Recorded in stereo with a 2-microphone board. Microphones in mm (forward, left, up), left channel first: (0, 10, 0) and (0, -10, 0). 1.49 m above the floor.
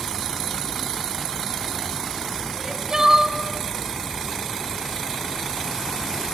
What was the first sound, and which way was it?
Crying, 30° right (ahead or behind).